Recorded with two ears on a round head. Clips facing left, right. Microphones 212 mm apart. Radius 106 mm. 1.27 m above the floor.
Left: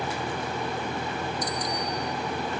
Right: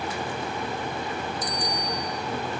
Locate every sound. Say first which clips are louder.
1.4 s a bicycle bell: even; 45° right (ahead or behind), 4.5 m